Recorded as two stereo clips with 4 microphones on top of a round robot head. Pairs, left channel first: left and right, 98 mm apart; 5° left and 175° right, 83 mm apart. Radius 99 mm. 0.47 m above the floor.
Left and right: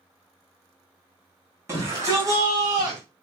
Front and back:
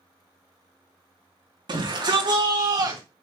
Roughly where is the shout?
Behind right.